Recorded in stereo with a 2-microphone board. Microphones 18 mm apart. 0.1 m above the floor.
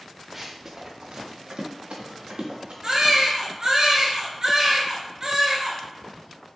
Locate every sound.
0.3 s running footsteps: 5° right (ahead or behind), 0.7 m; by 2.7 s 85° right, 1.9 m
2.8 s a baby crying: 35° right (ahead or behind), 0.9 m